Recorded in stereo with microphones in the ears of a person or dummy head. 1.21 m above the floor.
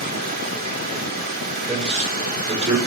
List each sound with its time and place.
0.0 s running water: 50° right (ahead or behind), 1.9 m
1.7 s a man speaking: 30° right (ahead or behind), 4.5 m